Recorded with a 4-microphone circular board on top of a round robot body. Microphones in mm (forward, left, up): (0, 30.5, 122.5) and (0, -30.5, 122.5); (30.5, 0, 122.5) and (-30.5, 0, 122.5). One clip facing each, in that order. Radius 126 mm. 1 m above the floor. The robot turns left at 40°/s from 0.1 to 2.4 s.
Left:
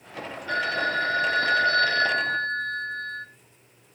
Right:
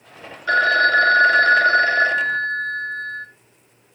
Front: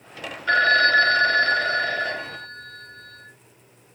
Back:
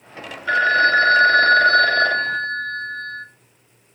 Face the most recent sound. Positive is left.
turn(degrees=-170)